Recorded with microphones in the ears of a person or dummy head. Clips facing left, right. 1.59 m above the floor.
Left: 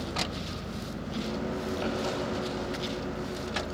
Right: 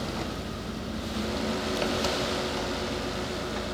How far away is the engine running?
About 4 m.